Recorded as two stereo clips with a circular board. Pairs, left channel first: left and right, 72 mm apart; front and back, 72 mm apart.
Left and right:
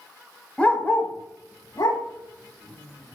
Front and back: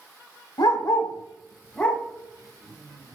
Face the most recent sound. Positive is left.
turn(degrees=95)